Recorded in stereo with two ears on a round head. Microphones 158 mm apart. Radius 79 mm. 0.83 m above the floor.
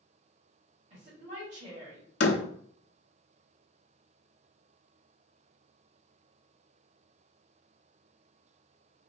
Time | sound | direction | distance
0.9 | a woman speaking | 40° right (ahead or behind) | 2 m
2.2 | a door slam | 65° left (ahead or behind) | 0.6 m